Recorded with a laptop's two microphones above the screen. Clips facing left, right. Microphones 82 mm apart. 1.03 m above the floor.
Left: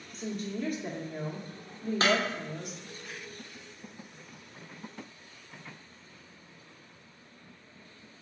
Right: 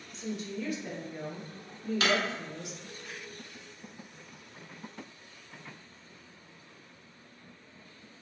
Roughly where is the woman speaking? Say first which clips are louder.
Left 2 dB; left.